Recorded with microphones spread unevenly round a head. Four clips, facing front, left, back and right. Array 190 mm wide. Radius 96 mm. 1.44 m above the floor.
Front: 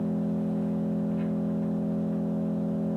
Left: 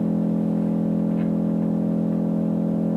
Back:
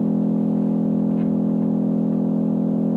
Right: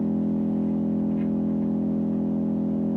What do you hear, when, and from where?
0.0 s an engine running: 145° left, 0.7 m